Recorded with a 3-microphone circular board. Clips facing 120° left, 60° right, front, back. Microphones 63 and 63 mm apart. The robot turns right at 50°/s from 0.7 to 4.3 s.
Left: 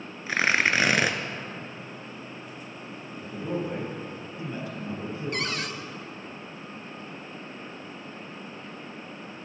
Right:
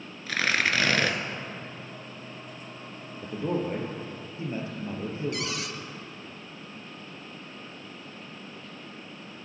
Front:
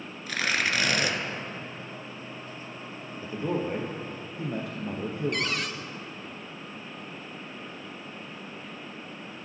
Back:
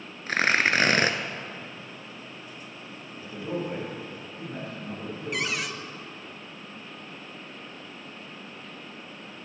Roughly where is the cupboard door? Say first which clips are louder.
Left 2 dB, even; left.